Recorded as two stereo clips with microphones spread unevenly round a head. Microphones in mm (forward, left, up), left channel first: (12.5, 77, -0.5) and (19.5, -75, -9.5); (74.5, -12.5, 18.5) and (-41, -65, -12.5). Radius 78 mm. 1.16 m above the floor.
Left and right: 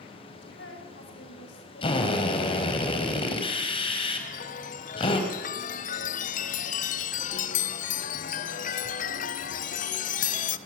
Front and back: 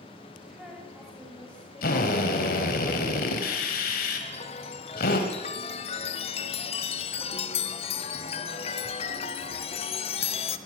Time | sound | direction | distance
0.4 | a woman speaking | 120° left | 6.5 m
1.8 | a drill | 35° left | 4 m
4.2 | a chime | 75° left | 0.9 m